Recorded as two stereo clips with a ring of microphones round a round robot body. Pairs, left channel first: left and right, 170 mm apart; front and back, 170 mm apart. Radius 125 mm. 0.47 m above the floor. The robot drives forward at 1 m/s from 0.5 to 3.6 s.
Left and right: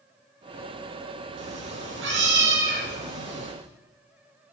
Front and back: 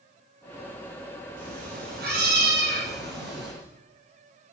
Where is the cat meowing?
120° right, 7.5 m; by 3.5 s 135° right, 8.5 m.